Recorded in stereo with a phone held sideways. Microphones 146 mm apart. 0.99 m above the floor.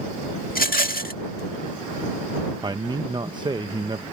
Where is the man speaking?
30° right (ahead or behind).